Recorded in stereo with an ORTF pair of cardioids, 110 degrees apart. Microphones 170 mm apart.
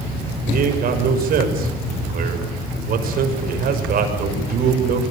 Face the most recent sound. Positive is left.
turn(degrees=-60)